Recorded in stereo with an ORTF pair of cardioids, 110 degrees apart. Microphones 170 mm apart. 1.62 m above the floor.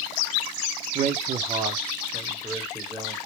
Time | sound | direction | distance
0.9 | a man speaking | 50° right | 0.6 m